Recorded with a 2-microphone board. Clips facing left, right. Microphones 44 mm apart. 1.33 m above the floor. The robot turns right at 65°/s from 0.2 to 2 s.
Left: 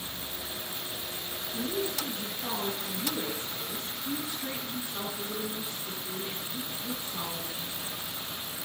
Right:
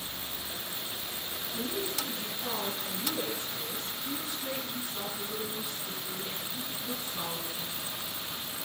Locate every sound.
1.5 s a woman speaking: 140° left, 8.5 m; by 8.1 s 170° left, 8.5 m